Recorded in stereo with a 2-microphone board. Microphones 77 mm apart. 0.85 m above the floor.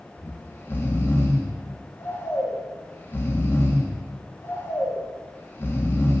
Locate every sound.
0.2 s snoring: 25° left (ahead or behind), 1.6 m